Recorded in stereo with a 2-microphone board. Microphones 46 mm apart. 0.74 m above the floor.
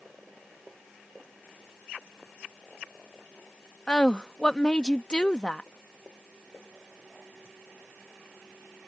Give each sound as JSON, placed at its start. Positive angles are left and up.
{"t": 3.9, "sound": "a woman speaking", "side_deg": 20}